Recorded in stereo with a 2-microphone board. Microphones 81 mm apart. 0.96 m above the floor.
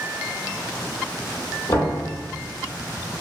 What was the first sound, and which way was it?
Knocking, 45° left (ahead or behind).